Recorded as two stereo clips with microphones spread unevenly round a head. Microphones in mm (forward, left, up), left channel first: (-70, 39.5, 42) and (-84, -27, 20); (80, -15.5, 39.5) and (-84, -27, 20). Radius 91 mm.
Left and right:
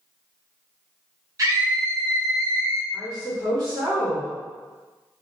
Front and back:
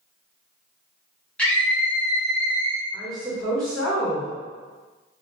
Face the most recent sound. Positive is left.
turn(degrees=-85)